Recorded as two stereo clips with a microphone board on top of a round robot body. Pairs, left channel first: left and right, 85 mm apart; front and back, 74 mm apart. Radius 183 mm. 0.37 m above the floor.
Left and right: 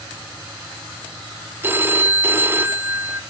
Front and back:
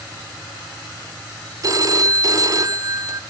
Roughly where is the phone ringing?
Behind right.